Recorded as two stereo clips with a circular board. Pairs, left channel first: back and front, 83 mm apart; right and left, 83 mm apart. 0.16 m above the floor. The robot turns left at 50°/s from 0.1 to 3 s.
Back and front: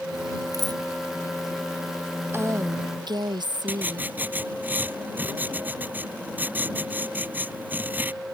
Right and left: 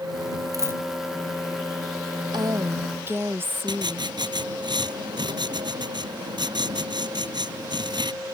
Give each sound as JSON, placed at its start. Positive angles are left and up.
{"t": 0.5, "sound": "a dropped coin", "azimuth_deg": 45}
{"t": 2.3, "sound": "a woman speaking", "azimuth_deg": 60}
{"t": 3.7, "sound": "writing", "azimuth_deg": 70}